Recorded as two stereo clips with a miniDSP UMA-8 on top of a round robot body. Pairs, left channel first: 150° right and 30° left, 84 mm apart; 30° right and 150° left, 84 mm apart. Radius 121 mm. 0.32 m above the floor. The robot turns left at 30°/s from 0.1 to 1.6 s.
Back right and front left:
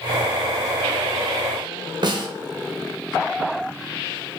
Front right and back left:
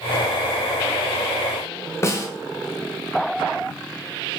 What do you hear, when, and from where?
2.0 s a snare drum: 20° left, 1.0 m